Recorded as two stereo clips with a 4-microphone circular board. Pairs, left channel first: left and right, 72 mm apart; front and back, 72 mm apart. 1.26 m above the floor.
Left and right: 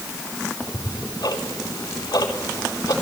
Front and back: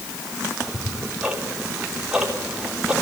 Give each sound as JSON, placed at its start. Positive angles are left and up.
{"t": 0.6, "sound": "ticking", "azimuth_deg": 105, "distance_m": 4.0}